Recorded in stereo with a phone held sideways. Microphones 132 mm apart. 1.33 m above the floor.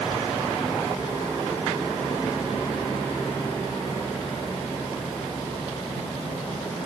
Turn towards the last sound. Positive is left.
No sound to turn to.